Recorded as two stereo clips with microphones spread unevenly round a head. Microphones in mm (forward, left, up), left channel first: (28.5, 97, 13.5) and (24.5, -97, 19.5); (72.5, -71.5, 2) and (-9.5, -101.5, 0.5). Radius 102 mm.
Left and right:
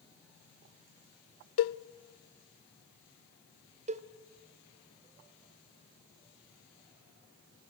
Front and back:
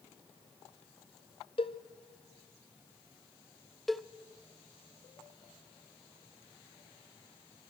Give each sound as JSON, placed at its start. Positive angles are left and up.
{"t": 1.6, "sound": "a cowbell", "azimuth_deg": 80, "distance_m": 0.6}
{"t": 3.9, "sound": "a cowbell", "azimuth_deg": -65, "distance_m": 0.7}